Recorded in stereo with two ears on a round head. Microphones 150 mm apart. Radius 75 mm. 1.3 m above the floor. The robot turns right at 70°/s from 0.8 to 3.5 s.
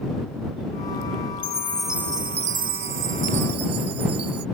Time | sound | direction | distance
1.4 | a chime | 150° left | ?